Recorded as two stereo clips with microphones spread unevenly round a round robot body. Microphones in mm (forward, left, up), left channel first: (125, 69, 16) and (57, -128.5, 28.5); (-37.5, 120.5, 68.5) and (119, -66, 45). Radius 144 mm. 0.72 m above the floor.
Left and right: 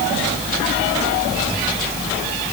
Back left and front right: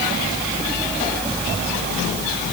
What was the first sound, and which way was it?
Only background noise.